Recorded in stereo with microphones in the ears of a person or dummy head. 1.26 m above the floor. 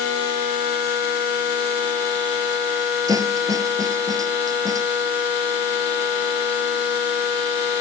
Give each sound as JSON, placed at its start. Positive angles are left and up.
{"t": 3.1, "sound": "a snare drum", "side_deg": -15}